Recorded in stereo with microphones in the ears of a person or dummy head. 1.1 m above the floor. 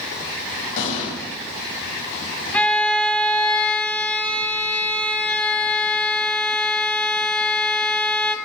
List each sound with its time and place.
0.8 s an explosion: 45° left (ahead or behind), 8 m
2.5 s a violin: 5° left (ahead or behind), 1.5 m